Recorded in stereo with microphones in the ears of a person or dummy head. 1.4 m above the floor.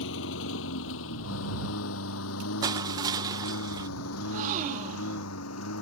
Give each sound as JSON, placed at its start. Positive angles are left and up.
{"t": 0.0, "sound": "a lawn mower", "side_deg": 70}
{"t": 2.6, "sound": "crushing", "side_deg": -20}
{"t": 4.2, "sound": "a gasp", "side_deg": -40}